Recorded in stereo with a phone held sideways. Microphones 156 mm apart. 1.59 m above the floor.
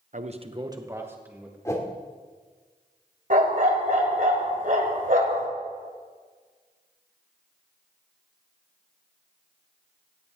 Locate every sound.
0.1 s a man speaking: 55° right (ahead or behind), 1.0 m; by 1.6 s 10° right (ahead or behind), 2.5 m
1.6 s a whoosh: 20° left (ahead or behind), 2 m
3.3 s a dog barking: 60° right (ahead or behind), 2.5 m